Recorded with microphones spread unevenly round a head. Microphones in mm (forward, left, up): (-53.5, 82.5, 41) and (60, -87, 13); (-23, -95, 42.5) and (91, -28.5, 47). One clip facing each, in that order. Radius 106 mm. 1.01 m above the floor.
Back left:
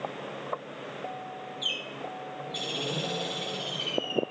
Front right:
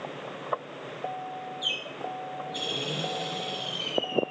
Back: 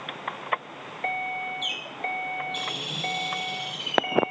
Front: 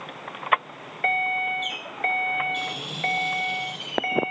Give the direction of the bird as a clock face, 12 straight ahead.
6 o'clock.